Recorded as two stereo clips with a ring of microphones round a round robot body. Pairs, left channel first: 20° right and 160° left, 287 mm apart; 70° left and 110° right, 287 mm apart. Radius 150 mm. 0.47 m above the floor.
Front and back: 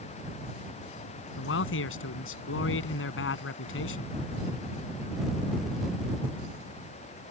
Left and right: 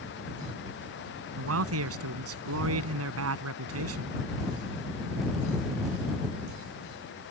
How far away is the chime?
No chime in this recording.